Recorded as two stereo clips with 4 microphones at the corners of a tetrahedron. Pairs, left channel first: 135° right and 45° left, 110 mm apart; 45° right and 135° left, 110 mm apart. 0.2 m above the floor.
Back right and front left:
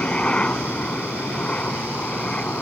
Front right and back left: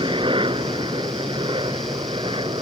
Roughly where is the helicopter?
Behind left.